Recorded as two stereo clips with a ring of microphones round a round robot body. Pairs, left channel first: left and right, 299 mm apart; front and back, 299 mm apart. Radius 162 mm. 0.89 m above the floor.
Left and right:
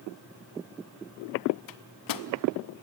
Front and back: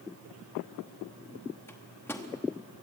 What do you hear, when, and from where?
1.7 s a microwave: 85° left, 0.8 m